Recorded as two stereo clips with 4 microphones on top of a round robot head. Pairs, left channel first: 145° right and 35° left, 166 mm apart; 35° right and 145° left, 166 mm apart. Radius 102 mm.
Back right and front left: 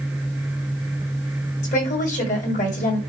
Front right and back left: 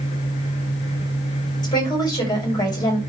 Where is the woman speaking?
100° right, 4.5 m.